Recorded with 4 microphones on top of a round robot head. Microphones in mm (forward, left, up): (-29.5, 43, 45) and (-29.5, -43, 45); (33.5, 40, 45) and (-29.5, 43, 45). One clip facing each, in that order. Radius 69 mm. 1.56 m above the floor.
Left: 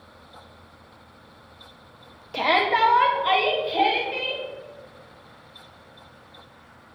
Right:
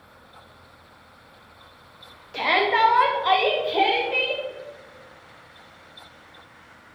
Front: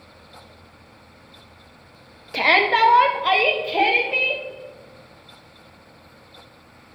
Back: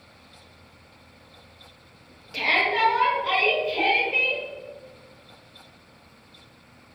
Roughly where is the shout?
Ahead left.